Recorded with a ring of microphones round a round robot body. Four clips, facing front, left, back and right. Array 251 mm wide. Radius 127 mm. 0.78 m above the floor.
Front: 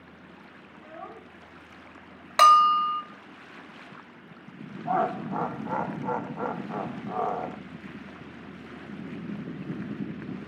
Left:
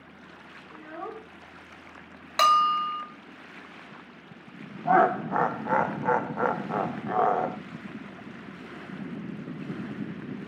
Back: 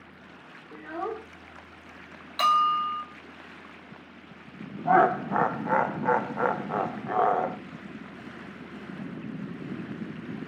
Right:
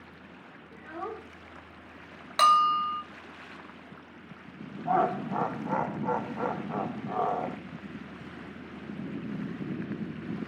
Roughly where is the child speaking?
Behind.